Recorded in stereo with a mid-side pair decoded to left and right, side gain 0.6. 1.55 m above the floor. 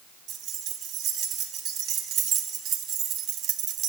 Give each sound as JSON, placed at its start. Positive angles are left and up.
{"t": 0.3, "sound": "keys jangling", "azimuth_deg": -60, "distance_m": 4.0}